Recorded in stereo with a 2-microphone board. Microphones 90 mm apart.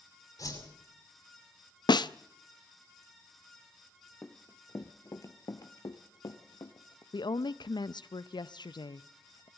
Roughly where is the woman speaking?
Left.